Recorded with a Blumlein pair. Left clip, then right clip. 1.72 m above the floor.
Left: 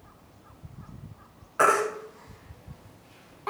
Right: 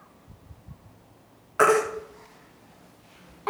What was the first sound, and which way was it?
A baby crying, 10° right.